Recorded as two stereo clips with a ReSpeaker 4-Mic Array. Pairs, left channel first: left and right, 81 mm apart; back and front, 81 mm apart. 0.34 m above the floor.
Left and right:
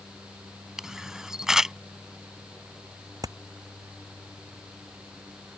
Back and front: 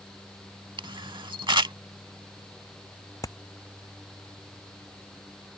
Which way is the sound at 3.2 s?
135° right.